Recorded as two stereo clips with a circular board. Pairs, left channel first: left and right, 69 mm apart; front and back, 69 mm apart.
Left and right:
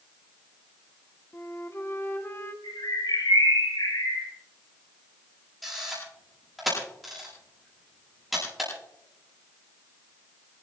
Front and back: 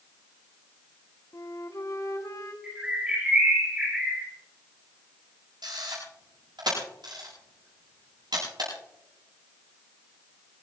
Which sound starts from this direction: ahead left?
A flute, at 1.3 s.